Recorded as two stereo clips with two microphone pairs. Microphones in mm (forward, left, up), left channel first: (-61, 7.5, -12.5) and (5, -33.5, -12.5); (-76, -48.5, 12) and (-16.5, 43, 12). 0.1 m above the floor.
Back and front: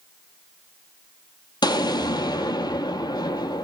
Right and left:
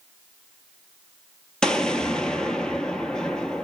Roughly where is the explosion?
Behind left.